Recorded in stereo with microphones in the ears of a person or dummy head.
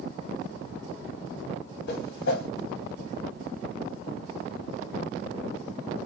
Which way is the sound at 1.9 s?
70° left (ahead or behind).